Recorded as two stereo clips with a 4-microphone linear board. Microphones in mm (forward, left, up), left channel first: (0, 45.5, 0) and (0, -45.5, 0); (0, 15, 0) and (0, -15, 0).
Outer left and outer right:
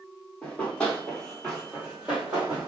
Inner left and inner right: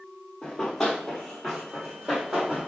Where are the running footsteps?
20° left (ahead or behind), 1.5 m; by 2.7 s 15° right (ahead or behind), 2.0 m.